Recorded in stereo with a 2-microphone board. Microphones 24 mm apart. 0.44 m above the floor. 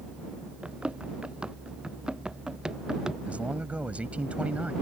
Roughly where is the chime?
No chime in this recording.